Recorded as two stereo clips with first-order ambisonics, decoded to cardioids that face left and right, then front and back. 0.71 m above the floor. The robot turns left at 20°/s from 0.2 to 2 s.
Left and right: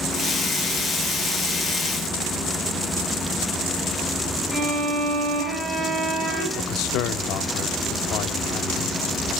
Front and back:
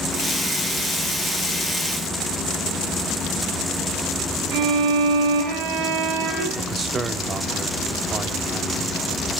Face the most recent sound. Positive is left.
turn(degrees=110)